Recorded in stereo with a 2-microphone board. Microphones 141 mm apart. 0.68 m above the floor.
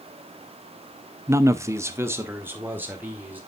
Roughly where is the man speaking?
Centre.